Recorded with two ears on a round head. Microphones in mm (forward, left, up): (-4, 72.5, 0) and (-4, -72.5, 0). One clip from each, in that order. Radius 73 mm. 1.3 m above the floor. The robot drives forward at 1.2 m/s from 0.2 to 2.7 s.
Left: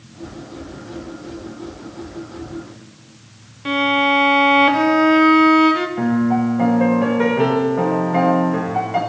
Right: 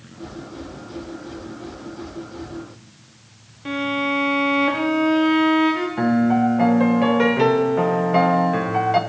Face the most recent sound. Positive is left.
turn(degrees=-65)  # may be behind; listen again after turning